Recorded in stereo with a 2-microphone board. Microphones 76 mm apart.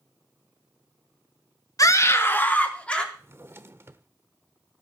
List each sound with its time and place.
1.8 s a scream: 50° left (ahead or behind), 1.5 m; by 3.0 s 15° left (ahead or behind), 3 m
3.1 s a drawer: 35° right (ahead or behind), 0.9 m